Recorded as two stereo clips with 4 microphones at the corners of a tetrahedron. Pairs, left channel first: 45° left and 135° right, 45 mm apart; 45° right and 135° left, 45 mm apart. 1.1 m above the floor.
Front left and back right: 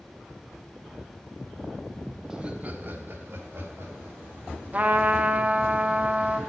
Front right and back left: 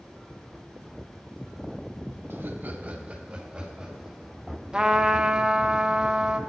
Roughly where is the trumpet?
Behind.